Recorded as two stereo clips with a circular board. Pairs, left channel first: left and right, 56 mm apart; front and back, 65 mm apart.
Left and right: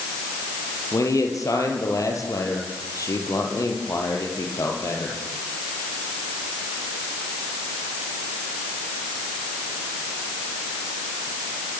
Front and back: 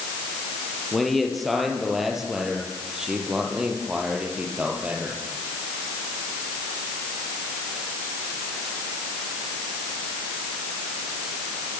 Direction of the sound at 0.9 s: 90° left.